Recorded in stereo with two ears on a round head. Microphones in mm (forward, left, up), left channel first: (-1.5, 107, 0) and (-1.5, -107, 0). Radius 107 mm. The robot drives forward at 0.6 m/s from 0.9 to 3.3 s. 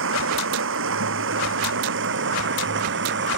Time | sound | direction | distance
0.0 | running water | 55° right (ahead or behind) | ?